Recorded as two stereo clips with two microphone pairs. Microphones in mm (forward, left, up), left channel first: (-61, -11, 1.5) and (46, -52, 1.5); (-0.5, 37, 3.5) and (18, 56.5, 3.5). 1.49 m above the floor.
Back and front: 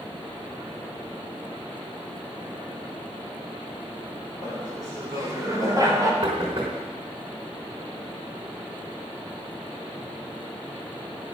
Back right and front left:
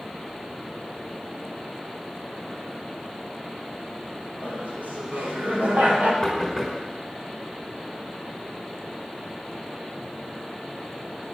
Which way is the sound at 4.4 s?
40° left.